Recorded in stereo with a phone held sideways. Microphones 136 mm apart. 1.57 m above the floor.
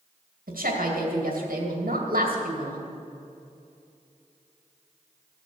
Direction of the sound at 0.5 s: 80° right.